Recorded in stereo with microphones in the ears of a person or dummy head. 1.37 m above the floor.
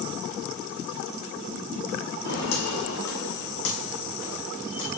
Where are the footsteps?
70° left (ahead or behind), 3.5 m; by 5.0 s 30° left (ahead or behind), 4 m.